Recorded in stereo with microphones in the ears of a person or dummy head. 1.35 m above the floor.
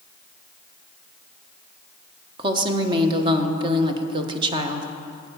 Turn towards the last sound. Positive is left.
turn(degrees=-30)  # may be behind; listen again after turning